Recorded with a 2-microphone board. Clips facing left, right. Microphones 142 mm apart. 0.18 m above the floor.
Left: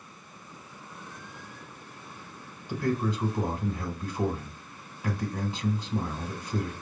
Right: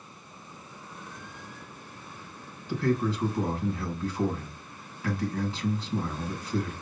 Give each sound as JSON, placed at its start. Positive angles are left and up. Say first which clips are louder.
{"t": 2.7, "sound": "a man speaking", "louder": "right 2 dB", "side_deg": 15, "distance_m": 1.2}